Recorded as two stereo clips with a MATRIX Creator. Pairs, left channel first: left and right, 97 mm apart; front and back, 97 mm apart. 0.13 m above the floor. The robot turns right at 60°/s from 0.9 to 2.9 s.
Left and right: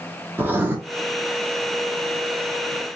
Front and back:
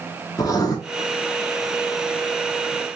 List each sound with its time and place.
0.4 s writing: 30° right, 0.8 m